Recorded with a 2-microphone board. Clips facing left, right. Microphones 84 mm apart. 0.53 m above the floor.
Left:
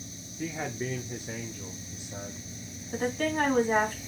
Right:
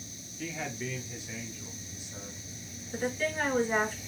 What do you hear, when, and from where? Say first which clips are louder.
0.4 s a man speaking: left 3 dB; 20° left (ahead or behind), 1.0 m; by 2.4 s 55° left (ahead or behind), 2.5 m
2.9 s a woman speaking: left 3 dB; 55° left (ahead or behind), 4 m